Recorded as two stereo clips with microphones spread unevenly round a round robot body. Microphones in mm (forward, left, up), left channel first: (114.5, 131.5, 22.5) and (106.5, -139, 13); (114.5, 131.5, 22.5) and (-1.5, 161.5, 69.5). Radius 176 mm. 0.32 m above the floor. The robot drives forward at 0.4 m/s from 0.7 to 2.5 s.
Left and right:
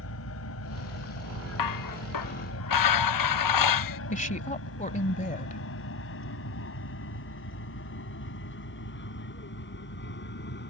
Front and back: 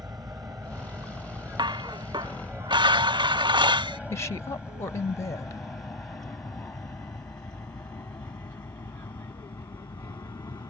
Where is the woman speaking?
30° left.